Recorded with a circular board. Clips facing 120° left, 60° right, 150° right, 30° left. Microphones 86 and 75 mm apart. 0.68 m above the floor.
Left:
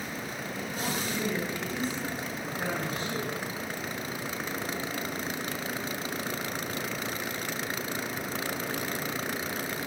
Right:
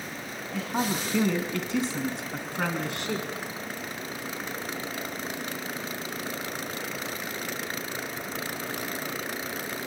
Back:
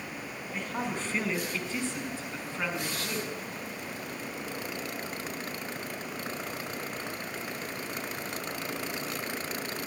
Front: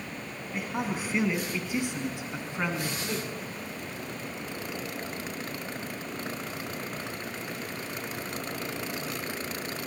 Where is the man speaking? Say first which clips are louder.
Right 6 dB, front 2 dB; 55° right, 5 m; by 3.3 s 40° right, 5.5 m.